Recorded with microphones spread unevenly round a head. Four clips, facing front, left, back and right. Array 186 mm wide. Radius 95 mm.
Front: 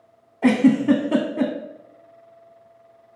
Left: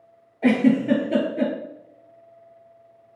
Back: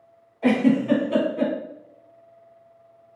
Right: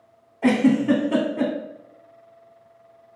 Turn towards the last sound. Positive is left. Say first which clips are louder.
# even, front 3 dB
turn(degrees=10)